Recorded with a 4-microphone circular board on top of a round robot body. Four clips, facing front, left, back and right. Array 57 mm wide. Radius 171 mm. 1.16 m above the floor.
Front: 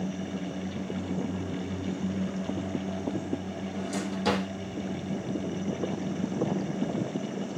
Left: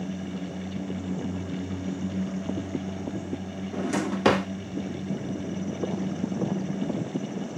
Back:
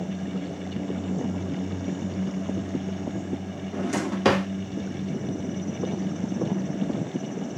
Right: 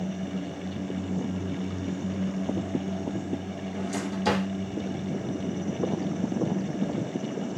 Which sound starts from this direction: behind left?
A drawer, at 3.7 s.